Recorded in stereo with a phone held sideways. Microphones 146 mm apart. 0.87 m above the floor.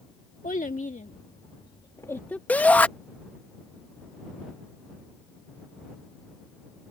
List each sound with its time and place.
0.4 s a child speaking: 75° left (ahead or behind); by 2.4 s 10° left (ahead or behind)
2.5 s a shout: 10° left (ahead or behind)